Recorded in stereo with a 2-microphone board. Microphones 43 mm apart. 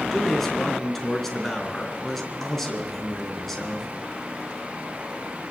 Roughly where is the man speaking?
Centre.